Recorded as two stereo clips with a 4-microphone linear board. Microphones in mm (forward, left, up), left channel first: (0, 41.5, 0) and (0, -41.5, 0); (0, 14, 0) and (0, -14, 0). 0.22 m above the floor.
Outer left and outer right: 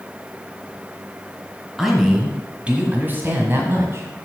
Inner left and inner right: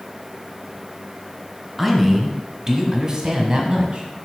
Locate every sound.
1.8 s a man speaking: centre (ahead or behind), 1.9 m; by 4.1 s 35° right (ahead or behind), 2.0 m